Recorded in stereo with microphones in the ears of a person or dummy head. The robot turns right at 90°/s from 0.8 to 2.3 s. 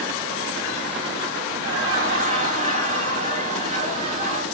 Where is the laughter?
110° right, 2.5 m; by 4.4 s 50° right, 2.5 m.